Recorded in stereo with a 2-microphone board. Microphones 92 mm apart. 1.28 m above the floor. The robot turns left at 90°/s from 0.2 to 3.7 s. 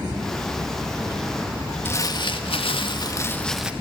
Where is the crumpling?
155° left, 2 m; by 3.7 s 10° right, 2 m.